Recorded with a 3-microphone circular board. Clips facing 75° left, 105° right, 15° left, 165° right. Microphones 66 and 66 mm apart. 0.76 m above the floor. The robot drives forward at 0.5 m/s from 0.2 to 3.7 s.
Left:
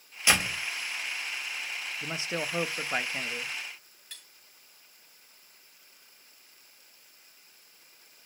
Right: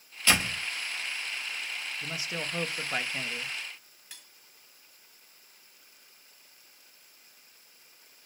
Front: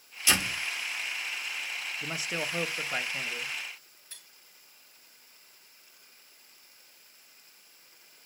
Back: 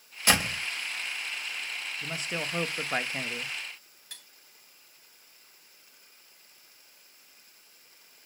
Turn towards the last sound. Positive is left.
turn(degrees=170)